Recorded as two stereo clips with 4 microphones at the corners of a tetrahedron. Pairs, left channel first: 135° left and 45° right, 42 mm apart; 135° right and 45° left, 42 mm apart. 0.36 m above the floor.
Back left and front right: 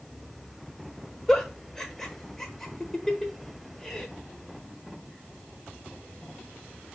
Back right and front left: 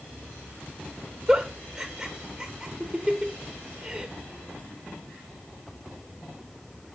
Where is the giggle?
85° left, 0.8 m.